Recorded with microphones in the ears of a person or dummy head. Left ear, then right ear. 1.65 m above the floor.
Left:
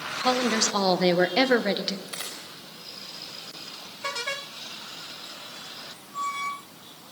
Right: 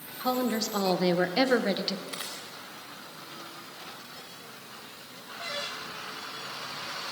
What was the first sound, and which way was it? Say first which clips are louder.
A woman speaking: left 5 dB; 35° left (ahead or behind).